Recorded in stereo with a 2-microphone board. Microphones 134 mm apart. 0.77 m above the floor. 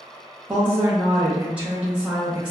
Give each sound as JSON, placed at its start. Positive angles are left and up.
{"t": 0.5, "sound": "a woman speaking", "side_deg": -10, "distance_m": 0.8}